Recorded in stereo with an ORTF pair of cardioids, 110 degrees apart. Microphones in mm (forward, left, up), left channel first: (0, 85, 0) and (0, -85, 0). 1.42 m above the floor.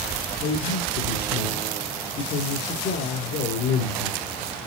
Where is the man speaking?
70° left, 4 m.